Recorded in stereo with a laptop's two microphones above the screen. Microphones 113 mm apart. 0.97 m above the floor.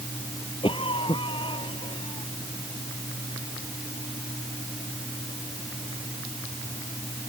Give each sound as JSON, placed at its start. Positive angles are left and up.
{"t": 0.6, "sound": "a cough", "side_deg": 50}